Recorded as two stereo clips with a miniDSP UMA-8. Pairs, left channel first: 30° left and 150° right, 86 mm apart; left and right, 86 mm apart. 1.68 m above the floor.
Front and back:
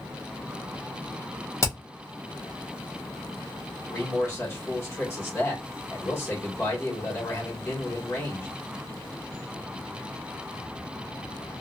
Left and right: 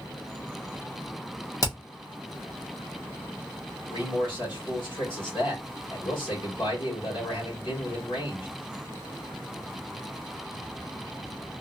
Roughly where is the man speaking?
Left.